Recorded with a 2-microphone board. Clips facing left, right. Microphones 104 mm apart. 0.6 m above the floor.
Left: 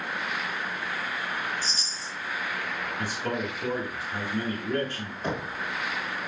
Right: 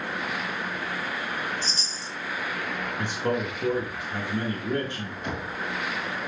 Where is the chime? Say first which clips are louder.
Right 1 dB; 5° left (ahead or behind), 1.3 m.